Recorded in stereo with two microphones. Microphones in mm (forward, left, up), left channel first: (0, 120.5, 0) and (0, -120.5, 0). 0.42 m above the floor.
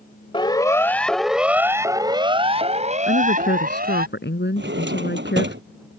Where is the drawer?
50° right (ahead or behind).